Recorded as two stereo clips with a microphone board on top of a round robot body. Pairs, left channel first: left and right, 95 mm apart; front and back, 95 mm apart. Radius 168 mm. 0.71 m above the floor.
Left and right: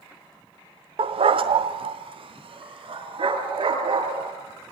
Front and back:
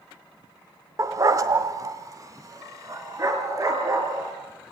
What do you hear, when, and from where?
1.0 s a dog barking: 120° right, 0.7 m